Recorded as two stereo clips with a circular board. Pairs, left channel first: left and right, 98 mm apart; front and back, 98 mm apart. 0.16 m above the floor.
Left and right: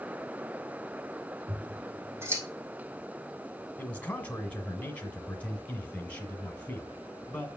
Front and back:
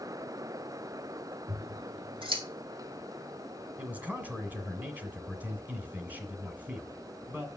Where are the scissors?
150° right, 3 m.